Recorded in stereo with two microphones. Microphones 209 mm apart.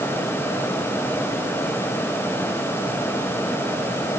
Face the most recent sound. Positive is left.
No sound to turn to.